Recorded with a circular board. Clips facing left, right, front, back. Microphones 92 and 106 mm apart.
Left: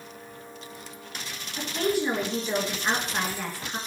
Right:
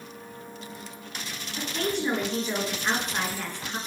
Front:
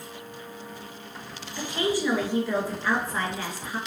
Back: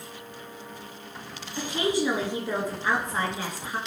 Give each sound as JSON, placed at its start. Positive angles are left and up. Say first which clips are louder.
{"t": 1.6, "sound": "a woman speaking", "louder": "left 3 dB, back 1 dB", "azimuth_deg": 170, "distance_m": 1.4}